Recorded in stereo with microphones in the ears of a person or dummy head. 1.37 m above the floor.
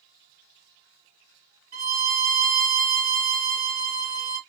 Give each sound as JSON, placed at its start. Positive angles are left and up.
{"t": 1.7, "sound": "a violin", "side_deg": -40, "distance_m": 0.8}